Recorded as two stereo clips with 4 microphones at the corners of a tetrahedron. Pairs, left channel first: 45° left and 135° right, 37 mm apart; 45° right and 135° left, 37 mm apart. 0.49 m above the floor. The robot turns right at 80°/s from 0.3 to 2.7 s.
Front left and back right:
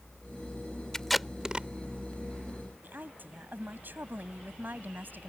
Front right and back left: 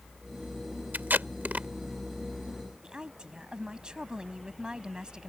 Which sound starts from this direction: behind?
A woman speaking, at 2.8 s.